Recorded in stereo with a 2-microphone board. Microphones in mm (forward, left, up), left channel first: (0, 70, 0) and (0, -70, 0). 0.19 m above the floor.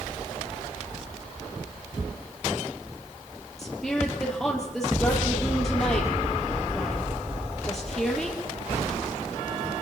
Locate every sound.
3.6 s a woman speaking: 5° left (ahead or behind), 5.5 m